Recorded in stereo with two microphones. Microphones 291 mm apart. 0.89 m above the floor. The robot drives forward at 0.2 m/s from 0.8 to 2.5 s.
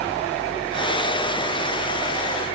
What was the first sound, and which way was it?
Only background noise.